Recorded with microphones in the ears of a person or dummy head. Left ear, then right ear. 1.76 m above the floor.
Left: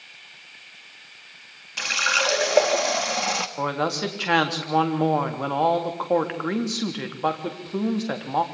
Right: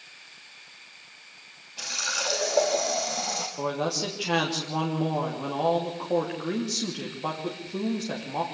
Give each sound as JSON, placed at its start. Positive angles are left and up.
{"t": 1.8, "sound": "a running tap", "side_deg": 55, "distance_m": 1.8}
{"t": 3.6, "sound": "a man speaking", "side_deg": 55, "distance_m": 3.0}